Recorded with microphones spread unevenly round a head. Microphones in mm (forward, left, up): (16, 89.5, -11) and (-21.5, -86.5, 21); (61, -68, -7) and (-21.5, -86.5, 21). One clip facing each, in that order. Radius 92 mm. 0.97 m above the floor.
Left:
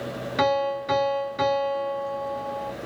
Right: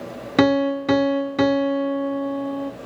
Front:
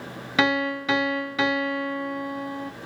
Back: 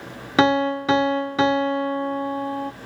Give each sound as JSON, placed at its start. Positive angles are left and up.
{"t": 0.4, "sound": "a piano", "azimuth_deg": -115, "distance_m": 0.7}